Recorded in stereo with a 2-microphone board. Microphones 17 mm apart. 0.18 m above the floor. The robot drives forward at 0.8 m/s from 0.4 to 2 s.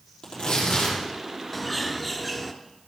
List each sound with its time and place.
0.2 s tearing paper: 75° left (ahead or behind), 5.5 m
1.5 s a bird: 10° left (ahead or behind), 0.6 m; by 2.5 s 5° left (ahead or behind), 0.9 m